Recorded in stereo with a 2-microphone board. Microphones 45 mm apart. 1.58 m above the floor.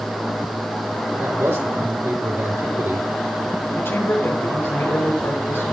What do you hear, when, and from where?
1.2 s a man speaking: 75° right (ahead or behind), 9 m
3.8 s a man speaking: 70° left (ahead or behind), 7 m